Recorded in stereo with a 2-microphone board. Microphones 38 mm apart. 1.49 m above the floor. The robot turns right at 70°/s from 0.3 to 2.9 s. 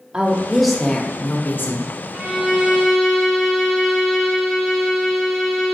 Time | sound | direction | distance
0.1 | a woman speaking | 25° right | 0.8 m
2.1 | a violin | 25° right (ahead or behind) | 0.9 m